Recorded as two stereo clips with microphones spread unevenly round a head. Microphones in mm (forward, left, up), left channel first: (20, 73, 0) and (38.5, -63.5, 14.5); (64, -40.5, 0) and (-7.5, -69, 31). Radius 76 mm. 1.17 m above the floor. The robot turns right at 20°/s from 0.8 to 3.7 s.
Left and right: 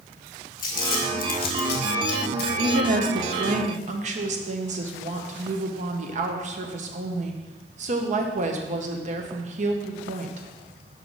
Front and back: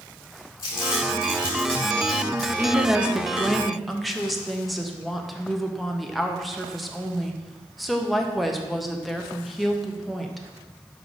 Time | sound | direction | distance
0.6 | crumpling | 80° left | 1.5 m
2.6 | a woman speaking | 75° right | 1.0 m